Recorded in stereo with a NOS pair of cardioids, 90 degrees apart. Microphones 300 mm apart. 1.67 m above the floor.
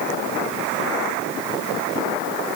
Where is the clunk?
No clunk in this recording.